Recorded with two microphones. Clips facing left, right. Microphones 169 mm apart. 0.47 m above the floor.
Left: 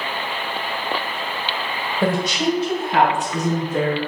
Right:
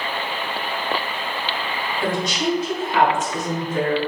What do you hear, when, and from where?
2.0 s a woman speaking: 60° left (ahead or behind), 2 m; by 4.0 s 75° left (ahead or behind), 4.5 m